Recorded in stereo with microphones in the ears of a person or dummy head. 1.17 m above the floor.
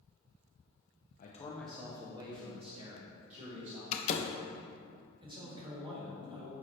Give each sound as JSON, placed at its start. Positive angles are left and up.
{"t": 1.2, "sound": "a man speaking", "side_deg": 45, "distance_m": 0.6}
{"t": 3.9, "sound": "a door slam", "side_deg": 40, "distance_m": 0.5}
{"t": 5.2, "sound": "a man speaking", "side_deg": -25, "distance_m": 1.5}